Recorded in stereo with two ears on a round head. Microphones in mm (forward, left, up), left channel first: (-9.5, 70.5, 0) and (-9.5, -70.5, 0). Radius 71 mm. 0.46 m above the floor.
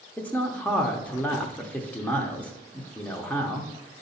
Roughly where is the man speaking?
Centre.